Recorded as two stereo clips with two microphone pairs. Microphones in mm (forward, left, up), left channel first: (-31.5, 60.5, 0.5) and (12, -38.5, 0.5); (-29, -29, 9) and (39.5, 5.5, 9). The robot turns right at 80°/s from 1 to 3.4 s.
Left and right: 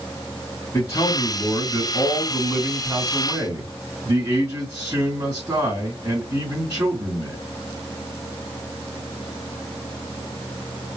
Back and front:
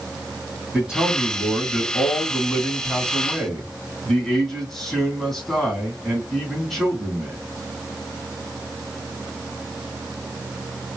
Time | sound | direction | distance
0.7 | a man speaking | 95° left | 1.8 m